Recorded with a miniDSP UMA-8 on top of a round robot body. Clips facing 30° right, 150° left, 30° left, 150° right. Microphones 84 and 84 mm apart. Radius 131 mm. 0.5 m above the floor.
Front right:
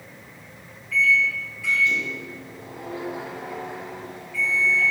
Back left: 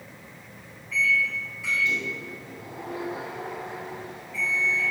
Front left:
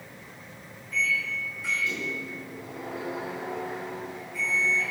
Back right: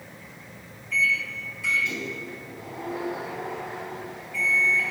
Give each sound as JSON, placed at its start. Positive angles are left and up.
{"t": 0.9, "sound": "a microwave", "azimuth_deg": -145, "distance_m": 3.5}